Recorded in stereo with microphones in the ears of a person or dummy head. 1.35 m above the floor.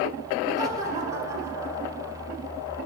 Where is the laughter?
20° right (ahead or behind), 4.5 m; by 2.4 s 10° right (ahead or behind), 6.5 m.